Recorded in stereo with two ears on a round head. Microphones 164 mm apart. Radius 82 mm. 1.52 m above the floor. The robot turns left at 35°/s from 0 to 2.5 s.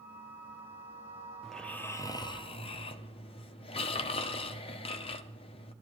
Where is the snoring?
Straight behind, 0.6 m; by 5.7 s 145° left, 0.6 m.